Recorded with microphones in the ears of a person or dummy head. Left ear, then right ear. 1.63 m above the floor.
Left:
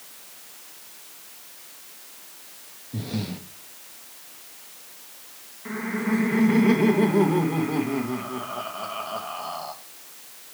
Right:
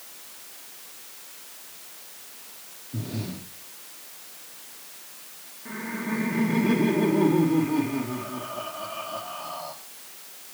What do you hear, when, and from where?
2.9 s breathing: 45° left (ahead or behind), 0.9 m
5.7 s laughter: 60° left (ahead or behind), 1.5 m